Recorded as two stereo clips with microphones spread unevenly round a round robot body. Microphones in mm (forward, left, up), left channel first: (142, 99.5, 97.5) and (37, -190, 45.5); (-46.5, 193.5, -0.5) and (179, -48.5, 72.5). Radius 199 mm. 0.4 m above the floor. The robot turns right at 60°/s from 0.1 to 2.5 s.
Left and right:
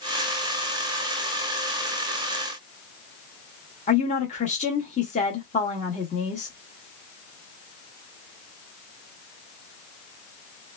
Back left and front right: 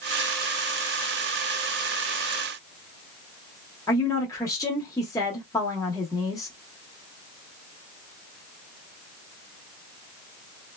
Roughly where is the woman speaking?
Behind left.